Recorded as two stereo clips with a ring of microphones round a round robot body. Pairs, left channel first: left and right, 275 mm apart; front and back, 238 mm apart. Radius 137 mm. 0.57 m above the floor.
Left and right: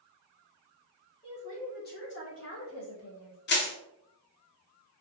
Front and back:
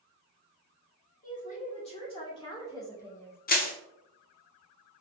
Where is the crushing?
45° left, 1.0 m.